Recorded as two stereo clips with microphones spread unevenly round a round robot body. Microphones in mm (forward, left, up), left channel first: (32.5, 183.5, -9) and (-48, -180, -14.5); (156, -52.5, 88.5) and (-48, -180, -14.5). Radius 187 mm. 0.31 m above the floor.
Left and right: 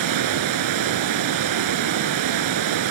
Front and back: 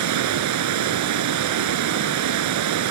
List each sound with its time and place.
0.0 s running water: 145° right, 0.8 m